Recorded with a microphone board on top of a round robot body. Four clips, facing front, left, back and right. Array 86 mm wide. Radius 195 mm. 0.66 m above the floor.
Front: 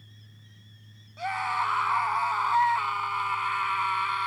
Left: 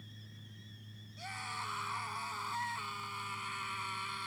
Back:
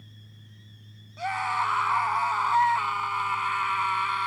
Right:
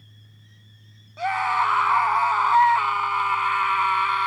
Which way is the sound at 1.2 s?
95° right.